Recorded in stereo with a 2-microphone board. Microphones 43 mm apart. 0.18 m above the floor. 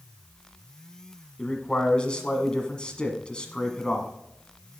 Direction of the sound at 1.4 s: 25° left (ahead or behind).